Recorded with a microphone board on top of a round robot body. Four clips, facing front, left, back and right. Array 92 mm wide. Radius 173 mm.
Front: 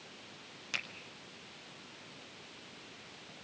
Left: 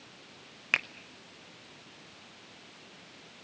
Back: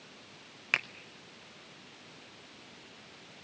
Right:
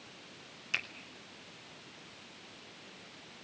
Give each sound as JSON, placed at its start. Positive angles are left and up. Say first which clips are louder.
{"t": 0.7, "sound": "a finger snap", "louder": "left 7 dB, back 9 dB", "azimuth_deg": 130, "distance_m": 0.6}